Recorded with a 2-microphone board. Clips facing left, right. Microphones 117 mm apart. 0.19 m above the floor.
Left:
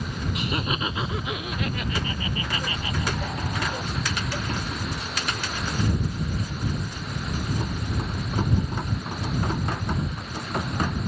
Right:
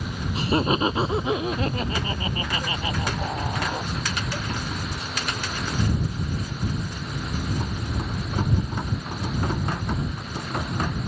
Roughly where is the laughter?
Right.